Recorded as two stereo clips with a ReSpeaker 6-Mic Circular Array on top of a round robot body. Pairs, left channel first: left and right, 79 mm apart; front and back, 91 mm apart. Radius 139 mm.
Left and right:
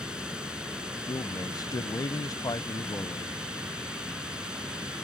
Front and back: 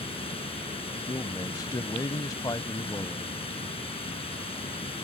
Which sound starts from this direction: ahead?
Running water, at 0.0 s.